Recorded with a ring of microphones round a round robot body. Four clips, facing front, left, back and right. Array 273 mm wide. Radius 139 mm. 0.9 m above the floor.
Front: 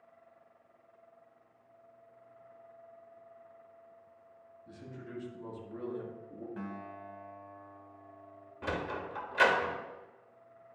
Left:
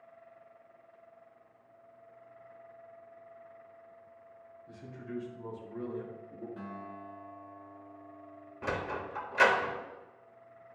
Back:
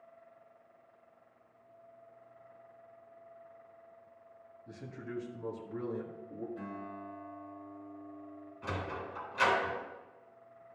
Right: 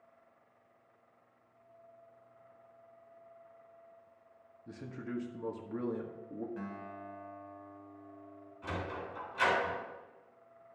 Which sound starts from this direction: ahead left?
A sliding door, at 8.6 s.